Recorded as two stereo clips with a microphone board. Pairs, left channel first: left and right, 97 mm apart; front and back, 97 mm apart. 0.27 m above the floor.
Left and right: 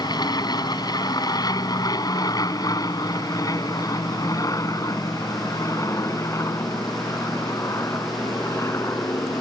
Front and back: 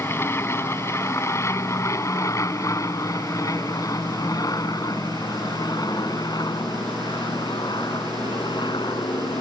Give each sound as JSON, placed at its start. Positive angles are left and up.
{"t": 0.0, "sound": "an aircraft", "azimuth_deg": 60}